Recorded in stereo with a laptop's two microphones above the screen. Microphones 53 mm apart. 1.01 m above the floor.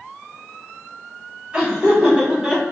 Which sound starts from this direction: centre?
Laughter, at 1.5 s.